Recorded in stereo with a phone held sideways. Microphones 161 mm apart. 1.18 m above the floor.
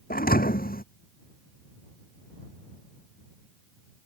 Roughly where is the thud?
Left.